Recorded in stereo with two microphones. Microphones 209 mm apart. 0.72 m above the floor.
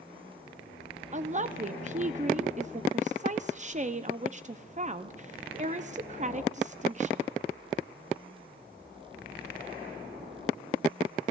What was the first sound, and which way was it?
A woman speaking, 35° right (ahead or behind).